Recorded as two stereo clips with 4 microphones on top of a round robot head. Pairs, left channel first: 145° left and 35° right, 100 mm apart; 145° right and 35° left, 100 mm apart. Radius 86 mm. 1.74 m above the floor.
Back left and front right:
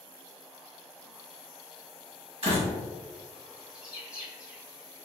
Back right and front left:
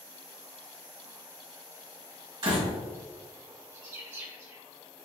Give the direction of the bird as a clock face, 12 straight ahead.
11 o'clock.